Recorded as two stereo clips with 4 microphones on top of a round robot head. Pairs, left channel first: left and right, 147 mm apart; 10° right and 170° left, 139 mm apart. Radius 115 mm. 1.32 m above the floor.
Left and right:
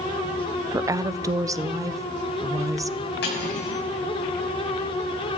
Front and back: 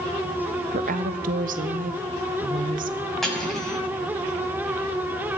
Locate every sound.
0.7 s a woman speaking: 160° right, 0.9 m
3.2 s cutlery clinking: 75° left, 6.5 m